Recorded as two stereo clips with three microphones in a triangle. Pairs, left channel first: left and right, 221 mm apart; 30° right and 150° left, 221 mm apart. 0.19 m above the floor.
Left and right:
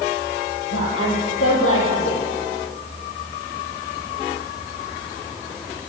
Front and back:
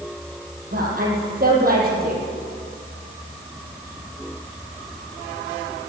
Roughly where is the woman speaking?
Left.